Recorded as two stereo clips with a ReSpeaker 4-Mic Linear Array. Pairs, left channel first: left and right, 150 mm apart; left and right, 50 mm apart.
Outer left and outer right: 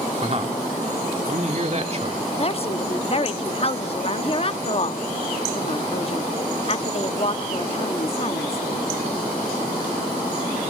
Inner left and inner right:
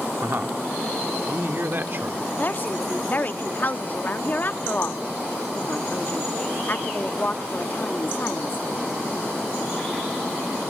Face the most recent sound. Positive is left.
turn(degrees=40)  # may be behind; listen again after turning